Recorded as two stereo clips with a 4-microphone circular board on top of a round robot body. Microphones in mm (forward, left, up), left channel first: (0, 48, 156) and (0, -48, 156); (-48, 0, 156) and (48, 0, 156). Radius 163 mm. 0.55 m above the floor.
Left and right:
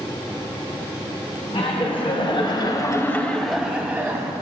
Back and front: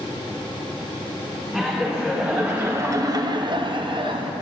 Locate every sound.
1.5 s laughter: 100° left, 1.3 m; by 4.3 s 30° right, 1.2 m